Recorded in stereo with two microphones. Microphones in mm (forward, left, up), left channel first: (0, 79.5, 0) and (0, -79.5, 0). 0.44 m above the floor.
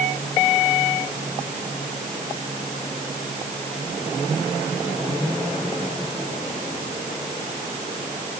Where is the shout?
I don't hear a shout.